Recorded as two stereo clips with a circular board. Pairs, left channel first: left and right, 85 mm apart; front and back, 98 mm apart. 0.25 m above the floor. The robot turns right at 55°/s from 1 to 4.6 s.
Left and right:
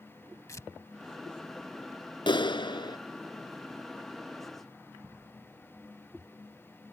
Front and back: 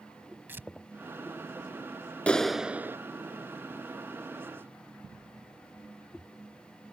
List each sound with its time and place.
0.5 s tearing paper: 120° left
2.3 s a clap: 75° left; by 3.0 s 115° left